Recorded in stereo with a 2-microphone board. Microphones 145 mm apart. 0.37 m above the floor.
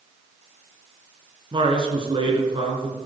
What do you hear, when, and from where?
1.5 s a man speaking: 35° right (ahead or behind), 5 m